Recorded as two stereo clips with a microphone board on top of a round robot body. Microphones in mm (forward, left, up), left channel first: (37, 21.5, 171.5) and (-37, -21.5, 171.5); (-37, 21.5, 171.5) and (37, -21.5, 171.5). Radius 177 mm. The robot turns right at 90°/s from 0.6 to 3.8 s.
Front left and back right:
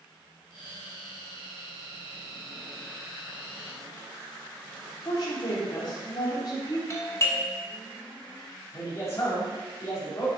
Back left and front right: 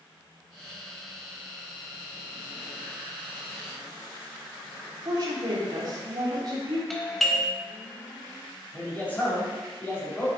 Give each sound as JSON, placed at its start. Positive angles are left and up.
{"t": 5.0, "sound": "a woman speaking", "azimuth_deg": 0, "distance_m": 3.0}
{"t": 6.9, "sound": "a doorbell", "azimuth_deg": 65, "distance_m": 1.5}
{"t": 8.7, "sound": "a man speaking", "azimuth_deg": 80, "distance_m": 3.0}